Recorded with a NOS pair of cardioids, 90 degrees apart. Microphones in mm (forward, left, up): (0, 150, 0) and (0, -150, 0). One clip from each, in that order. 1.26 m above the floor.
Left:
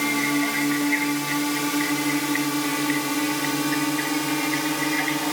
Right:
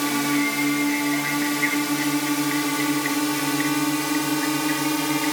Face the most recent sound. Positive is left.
turn(degrees=-35)